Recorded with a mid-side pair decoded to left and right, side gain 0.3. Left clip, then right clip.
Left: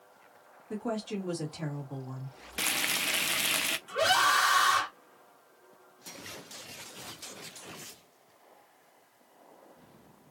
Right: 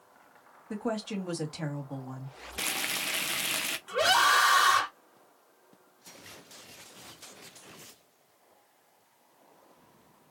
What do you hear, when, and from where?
0.7 s a woman speaking: 50° right, 2 m
2.6 s frying: 30° left, 0.6 m
3.9 s a scream: 45° right, 2.5 m